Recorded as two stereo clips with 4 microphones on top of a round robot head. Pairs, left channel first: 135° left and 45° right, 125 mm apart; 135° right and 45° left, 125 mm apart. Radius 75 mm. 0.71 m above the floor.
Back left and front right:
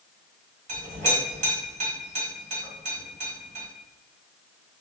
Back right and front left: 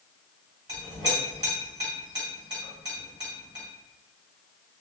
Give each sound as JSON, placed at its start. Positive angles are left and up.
{"t": 0.7, "sound": "a clink", "azimuth_deg": -15, "distance_m": 1.7}